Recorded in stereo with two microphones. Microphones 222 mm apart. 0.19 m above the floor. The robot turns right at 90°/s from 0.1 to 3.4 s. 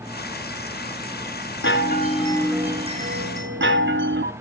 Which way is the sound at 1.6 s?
100° left.